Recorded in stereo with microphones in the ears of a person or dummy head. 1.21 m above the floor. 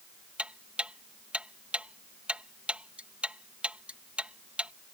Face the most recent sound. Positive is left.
turn(degrees=-5)  # may be behind; listen again after turning